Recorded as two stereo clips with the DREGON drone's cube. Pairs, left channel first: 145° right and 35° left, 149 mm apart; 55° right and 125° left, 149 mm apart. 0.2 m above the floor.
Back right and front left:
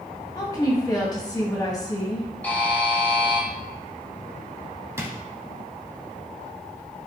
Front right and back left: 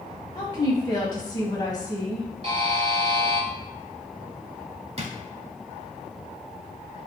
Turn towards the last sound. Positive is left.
turn(degrees=100)